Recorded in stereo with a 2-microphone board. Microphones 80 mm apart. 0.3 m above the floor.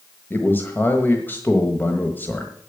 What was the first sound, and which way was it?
A man speaking, 25° left (ahead or behind).